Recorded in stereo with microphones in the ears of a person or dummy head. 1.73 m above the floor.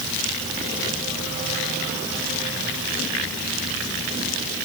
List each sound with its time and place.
Only background noise.